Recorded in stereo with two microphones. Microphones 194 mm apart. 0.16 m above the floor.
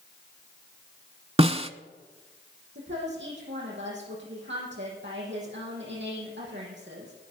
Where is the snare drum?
30° right (ahead or behind), 0.7 m.